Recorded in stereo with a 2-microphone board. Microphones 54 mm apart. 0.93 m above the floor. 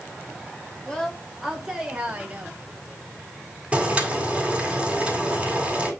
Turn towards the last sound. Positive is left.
turn(degrees=-20)  # may be behind; listen again after turning